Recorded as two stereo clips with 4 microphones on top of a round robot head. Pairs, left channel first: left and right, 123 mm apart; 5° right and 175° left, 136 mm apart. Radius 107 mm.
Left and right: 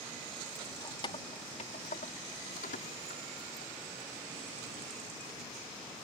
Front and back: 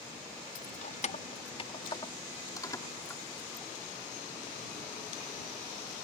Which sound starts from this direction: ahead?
Keys jangling, at 0.6 s.